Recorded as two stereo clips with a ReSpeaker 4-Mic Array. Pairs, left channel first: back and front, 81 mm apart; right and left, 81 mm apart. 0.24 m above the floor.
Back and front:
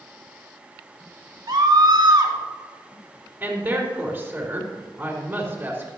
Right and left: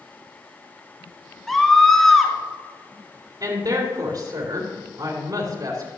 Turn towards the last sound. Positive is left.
turn(degrees=70)